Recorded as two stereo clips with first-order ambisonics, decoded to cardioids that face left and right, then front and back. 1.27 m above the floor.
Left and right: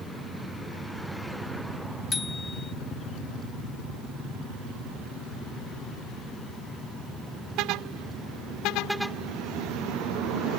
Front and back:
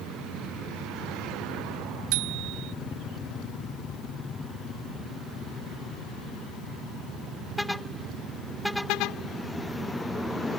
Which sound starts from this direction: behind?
A bicycle bell, at 2.1 s.